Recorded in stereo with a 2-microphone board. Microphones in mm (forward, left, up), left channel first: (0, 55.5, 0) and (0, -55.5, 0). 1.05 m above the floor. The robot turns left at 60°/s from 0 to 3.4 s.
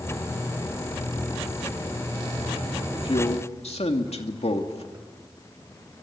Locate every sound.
2.9 s a man speaking: 45° left (ahead or behind), 2.5 m; by 4.8 s 70° left (ahead or behind), 2.5 m
4.9 s a toilet flushing: 20° right (ahead or behind), 6.5 m